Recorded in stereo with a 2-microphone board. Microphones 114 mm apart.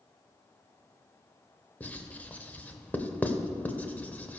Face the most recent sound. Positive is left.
turn(degrees=15)  # may be behind; listen again after turning